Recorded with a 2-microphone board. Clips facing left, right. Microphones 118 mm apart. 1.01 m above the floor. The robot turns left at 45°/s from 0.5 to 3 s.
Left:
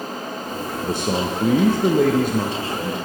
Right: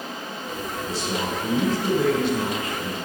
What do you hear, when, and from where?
0.8 s a man speaking: 120° left, 0.5 m; by 3.0 s 20° left, 0.5 m